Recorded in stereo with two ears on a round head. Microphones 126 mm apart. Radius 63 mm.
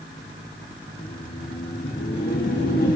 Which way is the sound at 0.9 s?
65° left (ahead or behind).